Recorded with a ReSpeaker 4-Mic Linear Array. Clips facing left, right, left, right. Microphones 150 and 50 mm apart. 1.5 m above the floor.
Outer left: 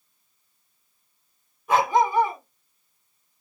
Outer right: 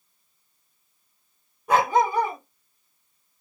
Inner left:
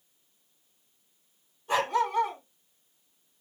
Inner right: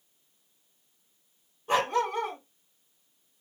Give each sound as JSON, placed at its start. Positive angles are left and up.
{"t": 1.7, "sound": "a dog barking", "side_deg": -40, "distance_m": 1.7}